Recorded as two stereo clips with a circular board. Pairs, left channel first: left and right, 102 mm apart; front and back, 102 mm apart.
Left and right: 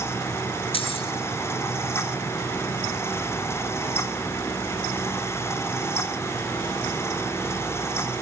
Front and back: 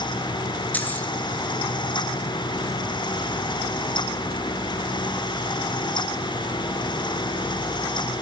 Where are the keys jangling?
75° left, 2.5 m.